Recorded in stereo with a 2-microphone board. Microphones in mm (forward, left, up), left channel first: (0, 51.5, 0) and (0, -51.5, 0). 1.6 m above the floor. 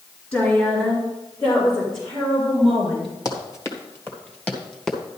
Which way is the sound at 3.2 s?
35° left (ahead or behind).